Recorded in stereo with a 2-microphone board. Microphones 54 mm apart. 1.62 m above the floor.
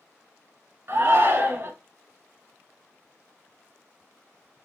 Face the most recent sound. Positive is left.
turn(degrees=-50)  # may be behind; listen again after turning